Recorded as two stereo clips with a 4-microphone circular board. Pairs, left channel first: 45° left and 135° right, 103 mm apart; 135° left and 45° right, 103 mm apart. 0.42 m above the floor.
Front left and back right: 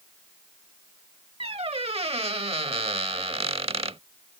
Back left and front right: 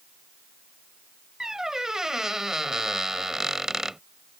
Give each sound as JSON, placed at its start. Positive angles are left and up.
{"t": 1.4, "sound": "a squeak", "azimuth_deg": -130}